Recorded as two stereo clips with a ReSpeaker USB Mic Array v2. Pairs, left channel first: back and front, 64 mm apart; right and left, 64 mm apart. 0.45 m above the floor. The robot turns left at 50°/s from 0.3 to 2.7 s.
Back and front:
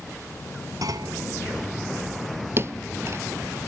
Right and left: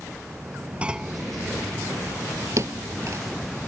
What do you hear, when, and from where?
0.8 s a clunk: 20° left; by 1.2 s straight ahead
2.6 s a thud: 50° left; by 3.2 s 45° left